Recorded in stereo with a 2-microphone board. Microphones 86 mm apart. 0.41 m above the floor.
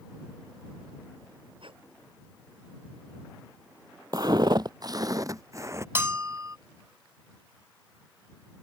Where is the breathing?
75° right (ahead or behind).